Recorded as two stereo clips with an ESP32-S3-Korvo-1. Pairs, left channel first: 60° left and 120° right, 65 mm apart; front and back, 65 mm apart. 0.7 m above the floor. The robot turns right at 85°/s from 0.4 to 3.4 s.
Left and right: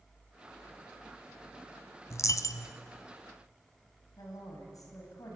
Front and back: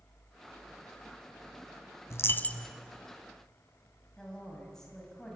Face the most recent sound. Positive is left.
turn(degrees=80)